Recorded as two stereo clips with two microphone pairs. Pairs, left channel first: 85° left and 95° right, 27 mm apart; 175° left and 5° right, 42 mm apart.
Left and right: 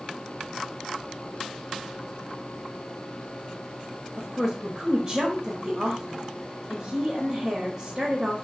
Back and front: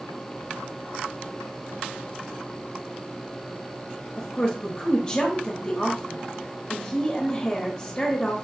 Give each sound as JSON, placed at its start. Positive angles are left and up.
{"t": 4.2, "sound": "a woman speaking", "azimuth_deg": -140, "distance_m": 1.2}